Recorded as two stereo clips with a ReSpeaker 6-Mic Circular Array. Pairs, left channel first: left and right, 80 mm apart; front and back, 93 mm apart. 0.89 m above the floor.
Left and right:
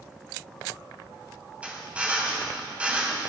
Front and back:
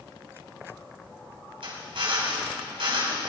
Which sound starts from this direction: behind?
A drill, at 1.6 s.